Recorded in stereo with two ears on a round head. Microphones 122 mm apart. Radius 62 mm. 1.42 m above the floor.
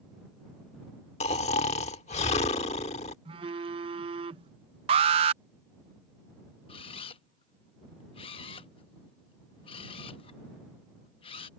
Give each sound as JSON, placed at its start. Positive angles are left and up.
{"t": 1.2, "sound": "snoring", "side_deg": 50}
{"t": 3.2, "sound": "a phone buzzing", "side_deg": -35}
{"t": 4.9, "sound": "an alarm", "side_deg": -40}
{"t": 6.7, "sound": "a camera shutter", "side_deg": 40}